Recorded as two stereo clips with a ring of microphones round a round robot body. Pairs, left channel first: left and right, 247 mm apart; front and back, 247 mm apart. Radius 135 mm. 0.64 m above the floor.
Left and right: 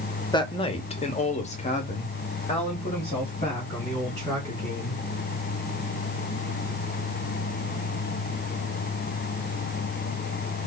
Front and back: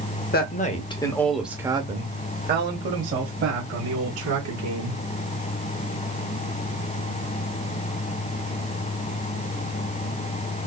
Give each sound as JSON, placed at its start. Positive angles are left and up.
{"t": 0.3, "sound": "a woman speaking", "azimuth_deg": 25, "distance_m": 0.9}